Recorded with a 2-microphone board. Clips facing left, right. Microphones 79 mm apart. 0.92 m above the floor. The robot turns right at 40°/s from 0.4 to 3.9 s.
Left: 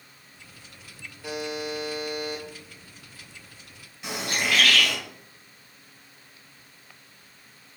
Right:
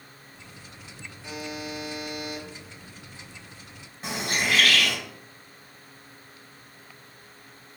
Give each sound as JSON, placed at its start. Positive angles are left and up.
{"t": 1.2, "sound": "a buzzer", "azimuth_deg": 95, "distance_m": 1.4}
{"t": 4.0, "sound": "a bird", "side_deg": -40, "distance_m": 2.5}